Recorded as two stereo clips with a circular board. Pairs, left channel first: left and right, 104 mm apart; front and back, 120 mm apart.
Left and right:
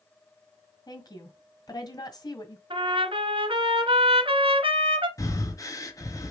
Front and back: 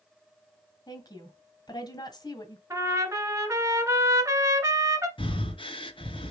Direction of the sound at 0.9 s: 50° left.